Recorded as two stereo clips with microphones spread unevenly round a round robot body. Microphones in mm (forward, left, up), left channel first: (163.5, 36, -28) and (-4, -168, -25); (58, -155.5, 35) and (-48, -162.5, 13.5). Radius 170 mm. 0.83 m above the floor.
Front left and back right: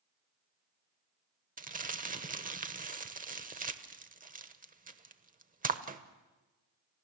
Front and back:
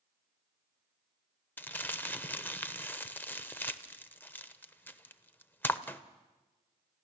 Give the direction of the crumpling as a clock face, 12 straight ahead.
2 o'clock.